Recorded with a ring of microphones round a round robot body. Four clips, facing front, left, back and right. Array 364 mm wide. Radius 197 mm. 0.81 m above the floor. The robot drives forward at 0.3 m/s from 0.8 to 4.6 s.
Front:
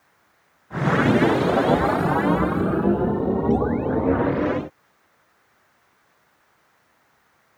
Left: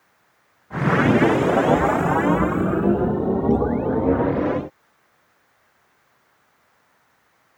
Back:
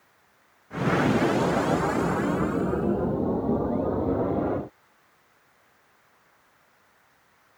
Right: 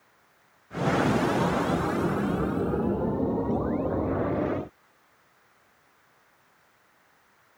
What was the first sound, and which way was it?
Only background noise.